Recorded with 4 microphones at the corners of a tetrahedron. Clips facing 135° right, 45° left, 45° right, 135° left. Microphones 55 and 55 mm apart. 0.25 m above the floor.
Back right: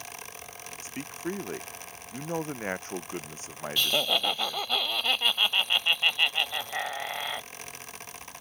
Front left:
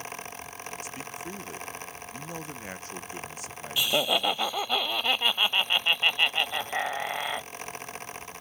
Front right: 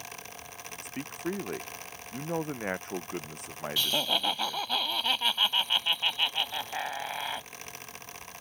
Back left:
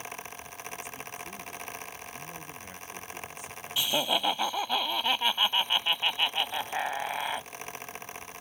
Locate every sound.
0.8 s a man speaking: 80° right
3.8 s laughter: 95° left